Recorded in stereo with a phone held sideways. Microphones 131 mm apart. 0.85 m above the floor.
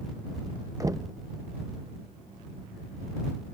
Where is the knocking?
25° right (ahead or behind).